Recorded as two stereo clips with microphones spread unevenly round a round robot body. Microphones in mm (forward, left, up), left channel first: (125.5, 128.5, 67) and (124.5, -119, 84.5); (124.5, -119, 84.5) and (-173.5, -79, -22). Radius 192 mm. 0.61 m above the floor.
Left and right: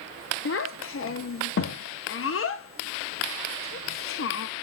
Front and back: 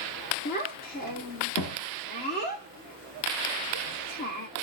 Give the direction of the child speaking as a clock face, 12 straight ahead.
10 o'clock.